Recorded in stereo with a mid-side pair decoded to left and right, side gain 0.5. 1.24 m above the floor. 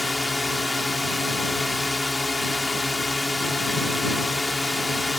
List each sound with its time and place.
0.0 s a drone: 10° left